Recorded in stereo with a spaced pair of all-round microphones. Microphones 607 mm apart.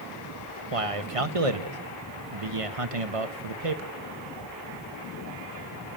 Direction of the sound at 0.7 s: 60° right (ahead or behind).